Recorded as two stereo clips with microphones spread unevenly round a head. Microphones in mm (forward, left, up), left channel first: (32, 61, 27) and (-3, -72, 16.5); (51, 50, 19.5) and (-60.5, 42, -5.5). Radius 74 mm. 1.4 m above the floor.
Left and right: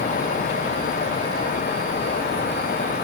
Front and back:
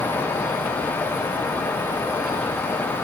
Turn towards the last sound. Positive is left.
No sound to turn to.